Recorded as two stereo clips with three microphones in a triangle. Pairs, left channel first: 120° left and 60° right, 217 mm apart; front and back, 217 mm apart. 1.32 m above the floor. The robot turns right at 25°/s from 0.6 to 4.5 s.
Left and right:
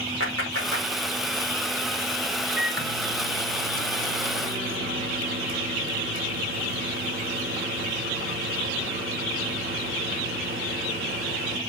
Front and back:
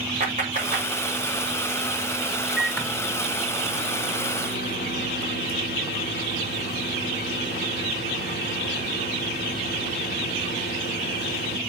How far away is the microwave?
About 1.2 m.